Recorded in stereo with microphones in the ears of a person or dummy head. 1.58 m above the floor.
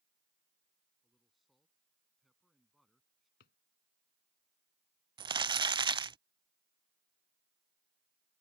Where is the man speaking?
Centre (ahead or behind).